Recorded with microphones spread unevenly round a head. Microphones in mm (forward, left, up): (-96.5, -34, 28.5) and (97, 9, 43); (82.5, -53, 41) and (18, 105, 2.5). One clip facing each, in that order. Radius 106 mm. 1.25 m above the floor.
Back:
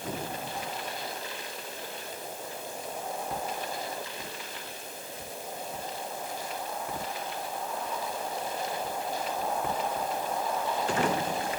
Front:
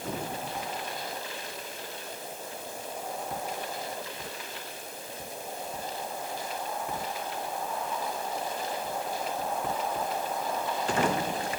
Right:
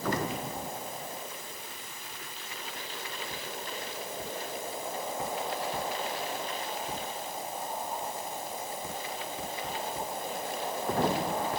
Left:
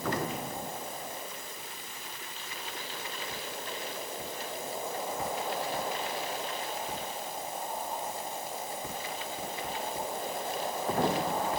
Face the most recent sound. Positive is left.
No sound to turn to.